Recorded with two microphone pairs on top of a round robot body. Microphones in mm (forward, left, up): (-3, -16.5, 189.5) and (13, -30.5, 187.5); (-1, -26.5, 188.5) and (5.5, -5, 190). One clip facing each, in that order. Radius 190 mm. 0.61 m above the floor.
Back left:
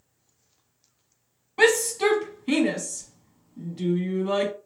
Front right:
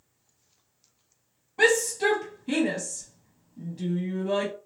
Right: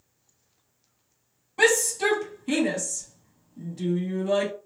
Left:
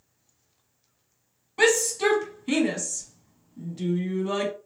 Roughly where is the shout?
Behind left.